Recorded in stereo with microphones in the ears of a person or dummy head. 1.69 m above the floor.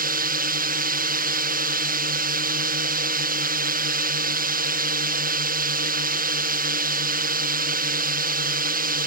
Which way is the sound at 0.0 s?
45° right (ahead or behind).